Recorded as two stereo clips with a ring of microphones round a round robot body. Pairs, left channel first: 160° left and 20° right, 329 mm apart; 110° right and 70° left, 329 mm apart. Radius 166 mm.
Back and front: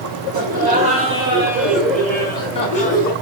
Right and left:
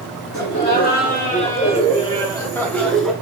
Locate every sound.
0.3 s laughter: 70° right, 1.6 m; by 3.1 s 155° left, 1.3 m